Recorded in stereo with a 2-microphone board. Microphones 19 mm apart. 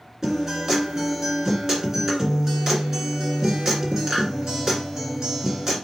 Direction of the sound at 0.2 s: 25° right (ahead or behind).